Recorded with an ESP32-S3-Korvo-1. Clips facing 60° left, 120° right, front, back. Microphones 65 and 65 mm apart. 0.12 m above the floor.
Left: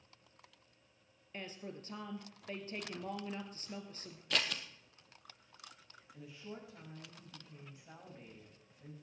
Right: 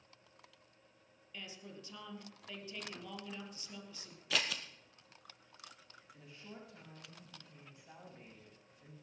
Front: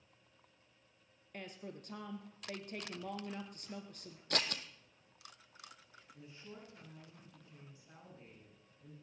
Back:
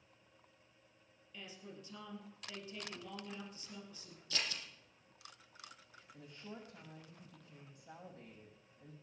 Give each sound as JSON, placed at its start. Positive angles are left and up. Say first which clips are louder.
{"t": 1.3, "sound": "a woman speaking", "louder": "left 4 dB, front 4 dB", "azimuth_deg": 20, "distance_m": 2.0}
{"t": 4.3, "sound": "scissors", "louder": "even, front 5 dB", "azimuth_deg": -30, "distance_m": 1.1}
{"t": 6.1, "sound": "a woman speaking", "louder": "left 4 dB, back 2 dB", "azimuth_deg": 145, "distance_m": 6.0}